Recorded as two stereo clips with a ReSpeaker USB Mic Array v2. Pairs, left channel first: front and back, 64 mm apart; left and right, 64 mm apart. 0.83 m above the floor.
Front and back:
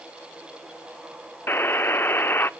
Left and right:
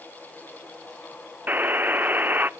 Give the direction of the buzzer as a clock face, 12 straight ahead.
1 o'clock.